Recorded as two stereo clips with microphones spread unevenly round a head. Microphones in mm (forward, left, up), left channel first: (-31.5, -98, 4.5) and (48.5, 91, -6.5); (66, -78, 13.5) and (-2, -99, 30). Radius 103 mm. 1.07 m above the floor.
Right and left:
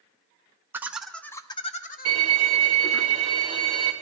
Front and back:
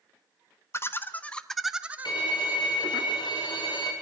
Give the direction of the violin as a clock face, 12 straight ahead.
12 o'clock.